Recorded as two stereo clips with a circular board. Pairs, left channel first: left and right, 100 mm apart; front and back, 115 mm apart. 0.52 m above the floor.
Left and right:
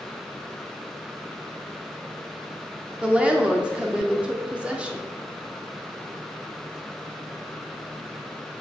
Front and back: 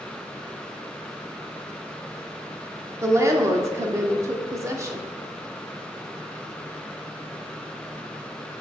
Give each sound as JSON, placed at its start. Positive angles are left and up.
{"t": 3.0, "sound": "a woman speaking", "azimuth_deg": -155, "distance_m": 1.0}